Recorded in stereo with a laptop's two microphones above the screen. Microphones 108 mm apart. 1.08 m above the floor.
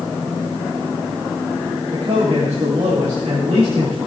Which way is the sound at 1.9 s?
85° right.